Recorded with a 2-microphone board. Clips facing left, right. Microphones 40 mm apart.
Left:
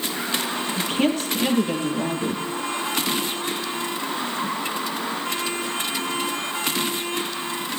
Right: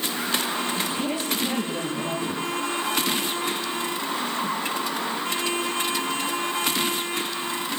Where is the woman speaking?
60° left (ahead or behind), 9.5 m.